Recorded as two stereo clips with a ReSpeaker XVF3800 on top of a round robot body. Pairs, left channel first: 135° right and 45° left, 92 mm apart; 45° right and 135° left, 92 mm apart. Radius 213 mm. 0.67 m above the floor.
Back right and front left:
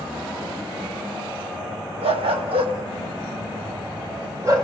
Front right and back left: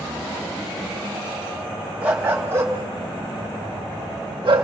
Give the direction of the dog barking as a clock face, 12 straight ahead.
10 o'clock.